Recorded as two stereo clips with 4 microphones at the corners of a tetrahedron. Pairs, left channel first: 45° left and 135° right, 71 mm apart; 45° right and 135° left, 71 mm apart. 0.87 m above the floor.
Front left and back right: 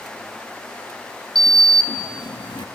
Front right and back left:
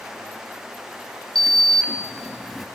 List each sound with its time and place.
1.4 s a sliding door: 45° left, 0.9 m